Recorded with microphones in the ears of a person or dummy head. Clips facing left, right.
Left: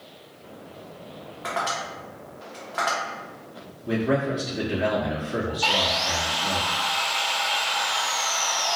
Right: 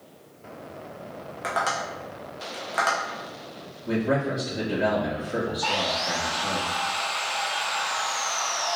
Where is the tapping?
25° right (ahead or behind), 0.6 m.